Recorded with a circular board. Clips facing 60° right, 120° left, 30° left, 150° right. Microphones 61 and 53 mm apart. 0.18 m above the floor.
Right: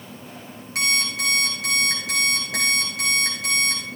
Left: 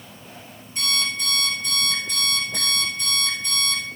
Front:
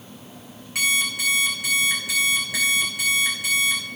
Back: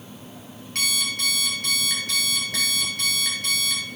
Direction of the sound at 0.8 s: 55° right.